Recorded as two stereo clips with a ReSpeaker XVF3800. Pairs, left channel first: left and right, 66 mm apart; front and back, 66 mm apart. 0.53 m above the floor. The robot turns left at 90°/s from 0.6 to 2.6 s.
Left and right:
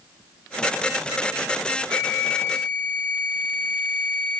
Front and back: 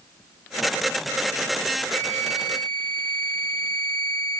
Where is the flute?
130° left, 1.2 m; by 4.4 s 65° left, 1.2 m.